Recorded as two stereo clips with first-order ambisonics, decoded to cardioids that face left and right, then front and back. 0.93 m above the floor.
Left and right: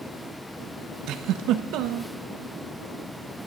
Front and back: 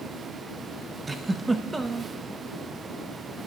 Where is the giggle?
105° right, 0.9 m.